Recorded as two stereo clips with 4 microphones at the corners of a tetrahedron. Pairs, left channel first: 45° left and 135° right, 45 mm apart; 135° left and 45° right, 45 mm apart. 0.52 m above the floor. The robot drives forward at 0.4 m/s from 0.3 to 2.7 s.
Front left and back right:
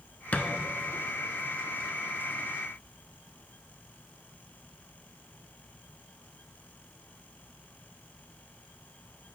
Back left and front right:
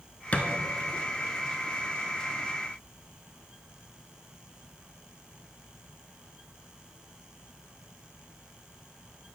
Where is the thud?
85° left, 0.6 m; by 0.5 s 95° left, 0.6 m.